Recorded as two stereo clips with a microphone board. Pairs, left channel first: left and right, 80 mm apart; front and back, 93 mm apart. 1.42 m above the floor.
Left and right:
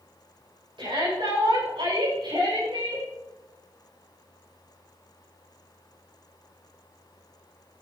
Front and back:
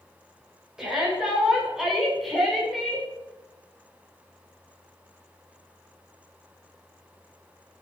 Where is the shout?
95° right, 7 m; by 3.1 s 85° right, 5 m.